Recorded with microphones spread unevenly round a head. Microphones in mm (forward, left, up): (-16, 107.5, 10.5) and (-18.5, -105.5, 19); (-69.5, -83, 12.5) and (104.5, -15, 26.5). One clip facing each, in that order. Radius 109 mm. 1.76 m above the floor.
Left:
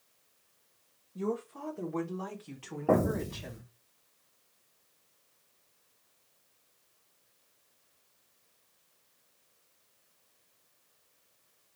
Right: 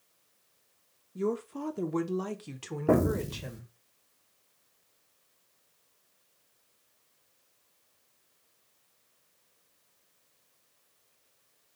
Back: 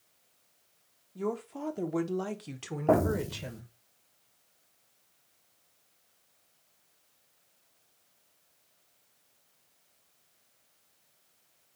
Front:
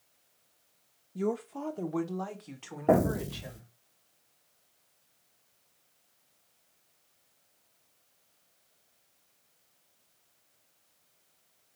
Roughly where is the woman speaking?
Ahead right.